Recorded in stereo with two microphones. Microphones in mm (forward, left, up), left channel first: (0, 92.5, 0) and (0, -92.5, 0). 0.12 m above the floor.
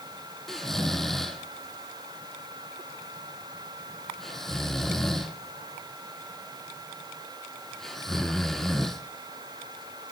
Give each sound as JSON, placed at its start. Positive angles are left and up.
{"t": 0.5, "sound": "snoring", "side_deg": 0, "distance_m": 0.6}